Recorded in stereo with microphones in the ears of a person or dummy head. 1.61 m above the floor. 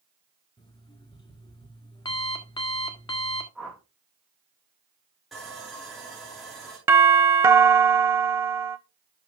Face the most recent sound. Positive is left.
turn(degrees=-10)  # may be behind; listen again after turning